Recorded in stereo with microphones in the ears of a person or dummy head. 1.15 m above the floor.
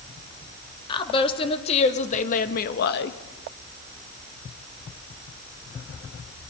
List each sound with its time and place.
0.9 s a woman speaking: 25° left (ahead or behind), 2.5 m; by 3.2 s 65° left (ahead or behind), 1.5 m